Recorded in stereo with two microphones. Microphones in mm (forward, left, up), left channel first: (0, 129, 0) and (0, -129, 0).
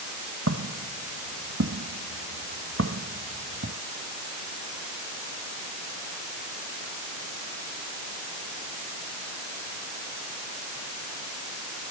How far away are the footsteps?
About 3.5 m.